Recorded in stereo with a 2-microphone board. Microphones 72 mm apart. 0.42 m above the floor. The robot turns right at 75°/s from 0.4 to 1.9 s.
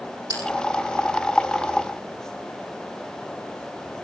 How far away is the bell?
About 6.5 m.